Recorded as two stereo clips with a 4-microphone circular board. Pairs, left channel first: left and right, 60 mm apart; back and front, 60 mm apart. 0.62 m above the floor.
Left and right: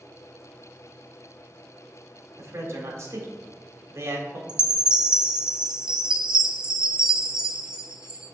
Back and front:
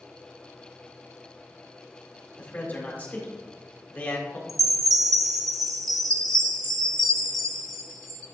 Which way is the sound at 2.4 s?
120° right.